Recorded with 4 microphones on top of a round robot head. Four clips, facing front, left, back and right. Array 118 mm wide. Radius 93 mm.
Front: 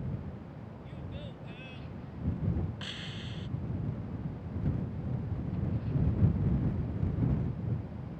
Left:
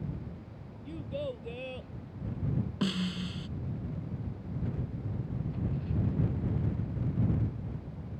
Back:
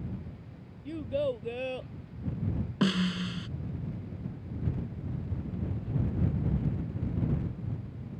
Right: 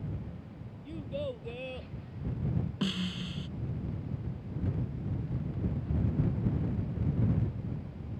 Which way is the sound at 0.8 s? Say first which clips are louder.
Even, back 18 dB; straight behind.